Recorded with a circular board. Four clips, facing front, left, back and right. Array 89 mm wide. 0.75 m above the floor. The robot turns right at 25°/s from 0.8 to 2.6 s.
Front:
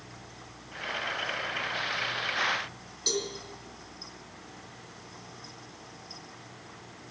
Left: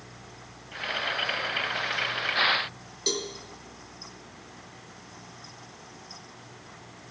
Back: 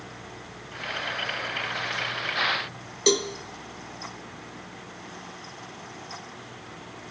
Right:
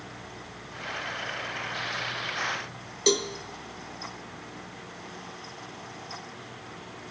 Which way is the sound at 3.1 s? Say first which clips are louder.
Right 7 dB, back 10 dB; 150° right.